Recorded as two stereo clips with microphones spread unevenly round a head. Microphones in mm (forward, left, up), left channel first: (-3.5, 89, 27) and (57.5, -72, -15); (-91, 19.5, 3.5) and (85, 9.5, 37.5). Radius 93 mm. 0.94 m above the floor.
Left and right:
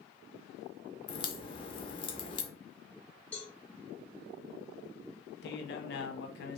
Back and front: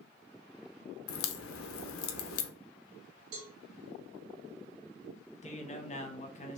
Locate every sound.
1.1 s a crack: 170° left, 0.5 m
3.3 s a cowbell: 25° left, 1.9 m
5.4 s a man speaking: 145° left, 0.8 m